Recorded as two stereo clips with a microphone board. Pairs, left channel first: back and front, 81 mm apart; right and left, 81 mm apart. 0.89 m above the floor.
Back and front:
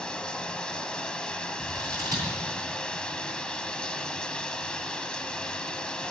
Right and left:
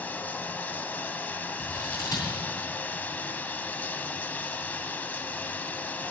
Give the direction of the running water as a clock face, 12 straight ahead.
4 o'clock.